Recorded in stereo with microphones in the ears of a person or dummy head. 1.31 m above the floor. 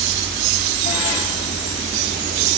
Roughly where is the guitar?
No guitar in this recording.